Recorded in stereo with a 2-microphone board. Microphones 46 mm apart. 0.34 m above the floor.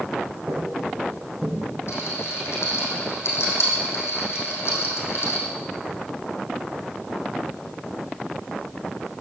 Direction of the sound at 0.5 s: 5° right (ahead or behind).